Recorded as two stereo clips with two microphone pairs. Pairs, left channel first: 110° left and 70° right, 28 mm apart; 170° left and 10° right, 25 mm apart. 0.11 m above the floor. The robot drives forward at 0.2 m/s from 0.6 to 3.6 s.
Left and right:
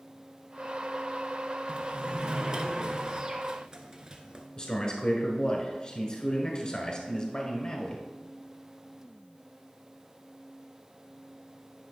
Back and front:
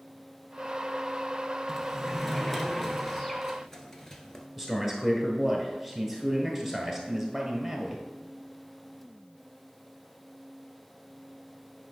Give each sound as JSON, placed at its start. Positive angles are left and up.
{"t": 1.7, "sound": "a sliding door", "azimuth_deg": -85, "distance_m": 0.8}
{"t": 4.6, "sound": "a man speaking", "azimuth_deg": 100, "distance_m": 1.2}